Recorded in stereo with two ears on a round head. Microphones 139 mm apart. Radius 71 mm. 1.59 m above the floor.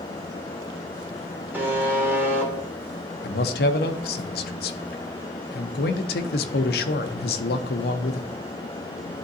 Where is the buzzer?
10° right (ahead or behind), 1.2 m.